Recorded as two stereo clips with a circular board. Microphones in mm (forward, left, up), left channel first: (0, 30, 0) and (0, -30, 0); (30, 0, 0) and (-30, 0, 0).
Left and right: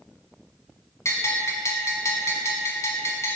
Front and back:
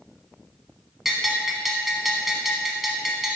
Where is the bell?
95° left, 0.8 m.